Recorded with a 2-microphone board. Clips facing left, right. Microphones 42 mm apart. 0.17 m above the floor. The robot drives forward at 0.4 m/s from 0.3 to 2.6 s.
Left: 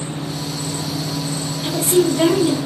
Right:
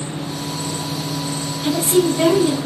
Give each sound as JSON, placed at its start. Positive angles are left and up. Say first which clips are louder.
{"t": 1.6, "sound": "a woman speaking", "louder": "even", "side_deg": 5, "distance_m": 1.6}